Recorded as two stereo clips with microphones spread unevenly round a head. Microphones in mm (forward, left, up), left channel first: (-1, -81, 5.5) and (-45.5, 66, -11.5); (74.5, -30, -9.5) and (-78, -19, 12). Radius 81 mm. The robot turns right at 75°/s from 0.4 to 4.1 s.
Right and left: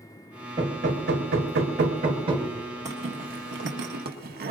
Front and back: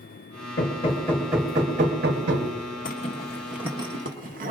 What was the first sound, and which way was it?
Hammering, 35° left.